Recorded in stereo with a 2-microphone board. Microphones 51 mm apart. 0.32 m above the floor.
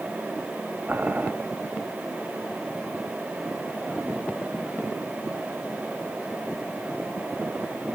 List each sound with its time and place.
0.9 s boiling: 35° right (ahead or behind), 1.4 m